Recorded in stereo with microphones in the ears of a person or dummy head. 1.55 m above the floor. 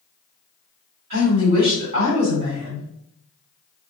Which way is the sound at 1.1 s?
45° right (ahead or behind).